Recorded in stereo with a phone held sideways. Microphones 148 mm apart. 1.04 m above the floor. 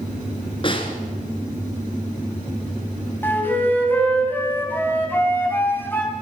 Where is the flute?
15° left (ahead or behind), 3 m.